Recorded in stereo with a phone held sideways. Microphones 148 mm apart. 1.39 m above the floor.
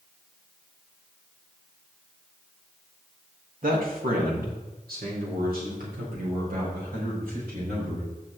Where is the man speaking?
70° right (ahead or behind), 2 m; by 8.4 s 75° right (ahead or behind), 6.5 m.